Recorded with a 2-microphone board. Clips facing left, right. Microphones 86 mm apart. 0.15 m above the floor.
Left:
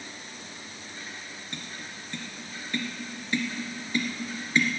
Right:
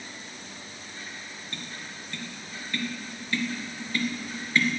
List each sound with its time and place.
1.5 s tapping: 20° left (ahead or behind), 1.9 m